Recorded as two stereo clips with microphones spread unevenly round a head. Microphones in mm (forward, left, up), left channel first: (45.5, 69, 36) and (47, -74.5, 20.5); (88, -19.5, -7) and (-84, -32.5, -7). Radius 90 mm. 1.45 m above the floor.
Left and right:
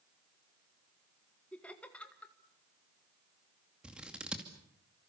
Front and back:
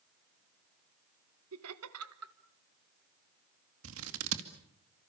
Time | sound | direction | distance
1.5 | laughter | 175° left | 1.7 m
3.8 | scissors | 175° right | 2.5 m